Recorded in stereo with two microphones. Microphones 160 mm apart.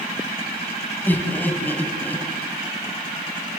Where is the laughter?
10° left (ahead or behind), 3.5 m.